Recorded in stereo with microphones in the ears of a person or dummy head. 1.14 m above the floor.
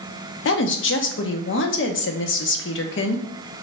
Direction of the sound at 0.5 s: 55° left (ahead or behind).